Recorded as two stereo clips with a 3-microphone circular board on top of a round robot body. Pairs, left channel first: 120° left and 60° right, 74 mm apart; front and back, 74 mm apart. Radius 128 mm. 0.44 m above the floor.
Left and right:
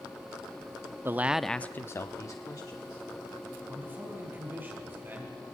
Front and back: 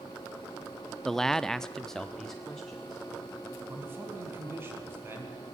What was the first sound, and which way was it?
A man speaking, 85° right.